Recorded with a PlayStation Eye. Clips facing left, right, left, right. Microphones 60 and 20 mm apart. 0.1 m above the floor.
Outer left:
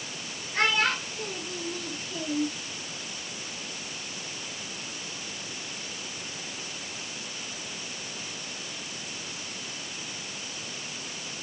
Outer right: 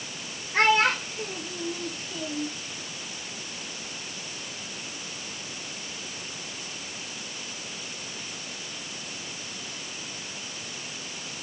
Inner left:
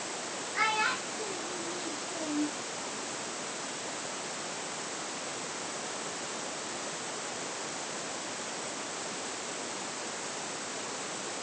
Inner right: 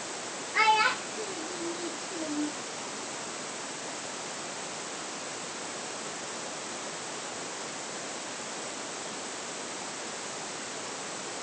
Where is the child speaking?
45° right (ahead or behind), 1.7 m; by 2.5 s 15° left (ahead or behind), 1.7 m.